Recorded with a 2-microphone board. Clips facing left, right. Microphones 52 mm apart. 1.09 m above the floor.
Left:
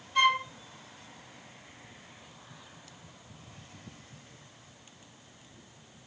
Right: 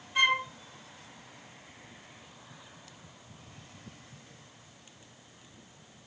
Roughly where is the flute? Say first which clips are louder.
Left 1 dB; centre.